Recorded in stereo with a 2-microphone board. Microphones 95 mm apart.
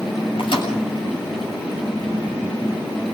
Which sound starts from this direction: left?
A microwave, at 0.4 s.